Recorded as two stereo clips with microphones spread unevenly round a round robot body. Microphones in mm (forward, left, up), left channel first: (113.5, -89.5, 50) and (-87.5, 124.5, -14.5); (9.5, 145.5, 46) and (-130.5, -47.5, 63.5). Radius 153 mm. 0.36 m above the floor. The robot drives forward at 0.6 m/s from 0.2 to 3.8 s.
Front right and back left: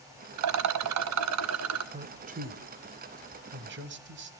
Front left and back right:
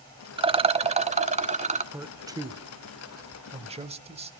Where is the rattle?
165° left, 0.7 m; by 1.8 s 170° left, 1.6 m.